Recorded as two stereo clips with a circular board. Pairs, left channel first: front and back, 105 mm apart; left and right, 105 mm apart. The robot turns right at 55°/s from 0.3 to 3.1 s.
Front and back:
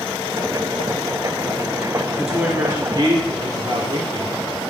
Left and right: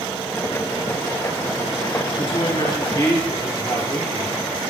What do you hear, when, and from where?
2.2 s a woman speaking: 90° left, 3 m; by 4.5 s 140° left, 3 m